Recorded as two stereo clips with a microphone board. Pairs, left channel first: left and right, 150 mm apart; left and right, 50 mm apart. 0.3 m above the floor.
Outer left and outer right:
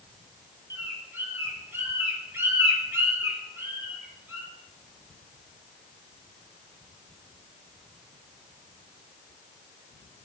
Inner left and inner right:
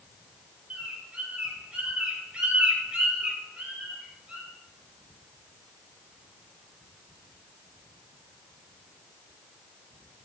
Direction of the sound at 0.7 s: 20° right (ahead or behind).